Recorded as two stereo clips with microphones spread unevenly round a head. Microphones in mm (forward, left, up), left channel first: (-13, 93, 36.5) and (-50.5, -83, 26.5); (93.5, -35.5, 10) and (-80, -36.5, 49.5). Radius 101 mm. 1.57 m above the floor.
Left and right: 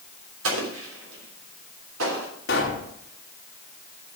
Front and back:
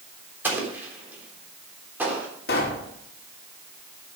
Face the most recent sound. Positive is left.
turn(degrees=40)